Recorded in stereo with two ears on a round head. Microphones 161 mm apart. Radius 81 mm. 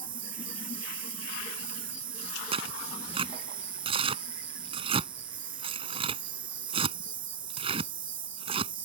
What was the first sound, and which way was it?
An insect, 30° right (ahead or behind).